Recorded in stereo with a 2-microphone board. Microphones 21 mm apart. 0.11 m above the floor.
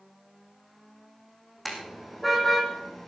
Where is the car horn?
Centre (ahead or behind), 3.5 m; by 3.1 s 15° left (ahead or behind), 3.5 m.